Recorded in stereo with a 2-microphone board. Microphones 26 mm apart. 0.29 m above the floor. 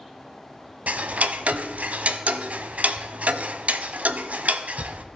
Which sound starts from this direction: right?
Ticking, at 0.9 s.